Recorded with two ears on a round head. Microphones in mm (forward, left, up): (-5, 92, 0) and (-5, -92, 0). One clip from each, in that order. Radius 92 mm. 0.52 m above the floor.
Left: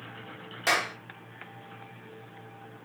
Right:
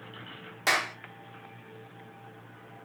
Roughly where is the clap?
Centre.